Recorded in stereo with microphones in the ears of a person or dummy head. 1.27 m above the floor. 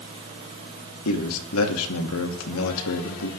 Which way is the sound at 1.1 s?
80° left.